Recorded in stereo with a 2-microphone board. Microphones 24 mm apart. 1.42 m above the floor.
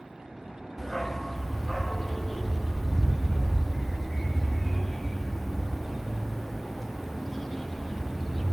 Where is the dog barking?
10° left (ahead or behind), 0.9 m.